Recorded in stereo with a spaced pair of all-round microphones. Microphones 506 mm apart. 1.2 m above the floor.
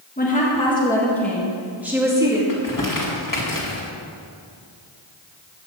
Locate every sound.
0.2 s a woman speaking: 20° left (ahead or behind), 1.6 m; by 2.4 s 5° right (ahead or behind), 2.5 m
2.5 s crumpling: 40° left (ahead or behind), 2 m